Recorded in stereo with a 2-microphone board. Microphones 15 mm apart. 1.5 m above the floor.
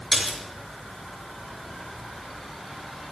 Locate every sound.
0.1 s a splash: 25° right (ahead or behind), 5.5 m